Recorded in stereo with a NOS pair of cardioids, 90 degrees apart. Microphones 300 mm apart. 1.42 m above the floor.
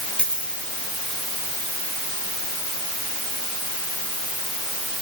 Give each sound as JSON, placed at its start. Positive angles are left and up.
{"t": 0.2, "sound": "a dropped coin", "azimuth_deg": 5, "distance_m": 6.0}